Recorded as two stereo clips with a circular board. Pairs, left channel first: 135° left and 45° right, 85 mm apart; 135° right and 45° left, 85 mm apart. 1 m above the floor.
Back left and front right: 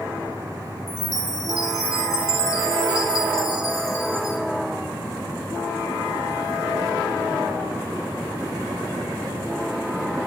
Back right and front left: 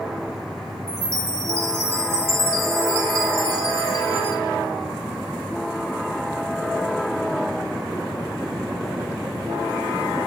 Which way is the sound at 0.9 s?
95° left.